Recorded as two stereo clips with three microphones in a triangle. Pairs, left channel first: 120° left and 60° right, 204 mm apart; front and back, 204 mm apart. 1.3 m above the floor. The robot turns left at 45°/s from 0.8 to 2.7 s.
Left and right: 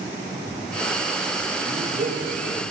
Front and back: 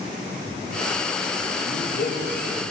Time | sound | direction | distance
1.6 | a man speaking | 10° right | 2.5 m